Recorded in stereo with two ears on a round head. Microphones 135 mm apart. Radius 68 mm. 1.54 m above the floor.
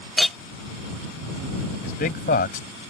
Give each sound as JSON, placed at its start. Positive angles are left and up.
{"t": 0.2, "sound": "a clink", "side_deg": 0}
{"t": 1.8, "sound": "a man speaking", "side_deg": 60}